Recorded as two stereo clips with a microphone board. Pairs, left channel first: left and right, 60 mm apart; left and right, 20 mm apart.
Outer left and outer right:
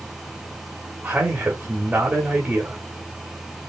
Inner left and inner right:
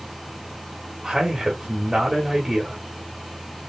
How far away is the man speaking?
About 1.7 m.